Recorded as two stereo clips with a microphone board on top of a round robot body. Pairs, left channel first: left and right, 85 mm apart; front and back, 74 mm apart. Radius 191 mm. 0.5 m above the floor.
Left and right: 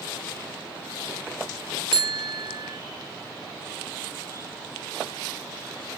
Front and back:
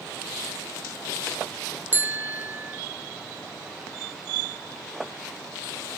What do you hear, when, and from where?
1.9 s a bicycle bell: 115° right